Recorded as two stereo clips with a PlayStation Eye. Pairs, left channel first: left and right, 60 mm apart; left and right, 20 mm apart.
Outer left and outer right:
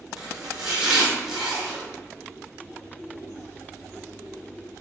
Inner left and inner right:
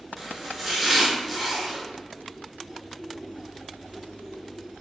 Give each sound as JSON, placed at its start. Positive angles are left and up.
{"t": 0.2, "sound": "chopping", "side_deg": -10, "distance_m": 0.9}